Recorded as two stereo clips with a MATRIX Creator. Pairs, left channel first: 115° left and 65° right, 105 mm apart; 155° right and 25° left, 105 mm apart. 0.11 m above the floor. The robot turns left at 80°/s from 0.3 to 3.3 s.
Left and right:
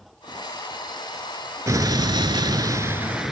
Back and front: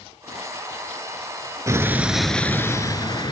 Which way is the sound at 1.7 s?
20° right.